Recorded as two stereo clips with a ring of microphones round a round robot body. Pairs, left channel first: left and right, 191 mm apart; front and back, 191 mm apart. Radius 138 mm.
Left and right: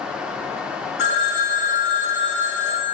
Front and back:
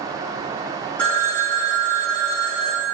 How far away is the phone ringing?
About 1.0 m.